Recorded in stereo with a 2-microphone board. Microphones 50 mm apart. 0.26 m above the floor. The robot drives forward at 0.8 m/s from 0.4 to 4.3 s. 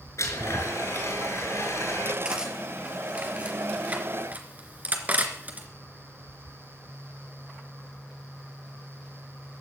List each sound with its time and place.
0.2 s a blender: 75° left (ahead or behind), 4 m; by 2.1 s 65° left (ahead or behind), 4.5 m
2.2 s cutlery clinking: 20° right (ahead or behind), 3.5 m; by 5.7 s 35° right (ahead or behind), 2.5 m